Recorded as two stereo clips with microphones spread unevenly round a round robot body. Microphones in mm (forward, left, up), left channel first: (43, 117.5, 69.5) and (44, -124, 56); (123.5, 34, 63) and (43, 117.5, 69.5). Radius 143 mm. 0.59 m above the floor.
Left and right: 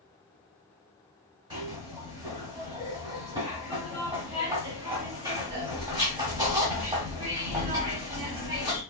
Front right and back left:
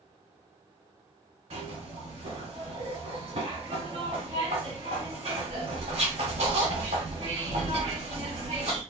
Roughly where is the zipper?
Behind.